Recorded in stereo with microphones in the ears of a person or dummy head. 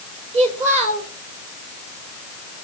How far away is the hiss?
I don't hear a hiss.